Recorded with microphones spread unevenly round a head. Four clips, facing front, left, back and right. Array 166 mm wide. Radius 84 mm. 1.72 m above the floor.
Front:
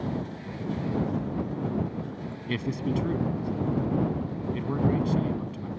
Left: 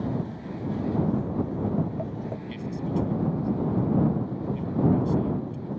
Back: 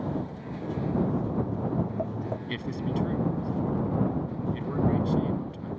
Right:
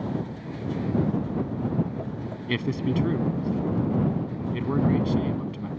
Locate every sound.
1.2 s footsteps: 150° left; by 2.4 s 155° left
2.5 s a man speaking: 75° right